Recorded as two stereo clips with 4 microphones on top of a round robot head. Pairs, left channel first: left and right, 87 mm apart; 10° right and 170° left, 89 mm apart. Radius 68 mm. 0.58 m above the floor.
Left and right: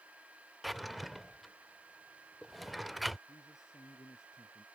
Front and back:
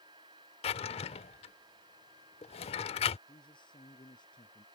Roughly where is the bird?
No bird in this recording.